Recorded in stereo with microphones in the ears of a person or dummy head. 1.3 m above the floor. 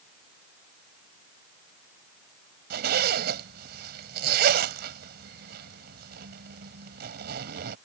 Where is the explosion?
No explosion in this recording.